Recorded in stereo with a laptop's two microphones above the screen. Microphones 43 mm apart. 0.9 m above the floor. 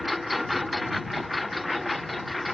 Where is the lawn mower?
Centre (ahead or behind); by 2.5 s 5° left (ahead or behind).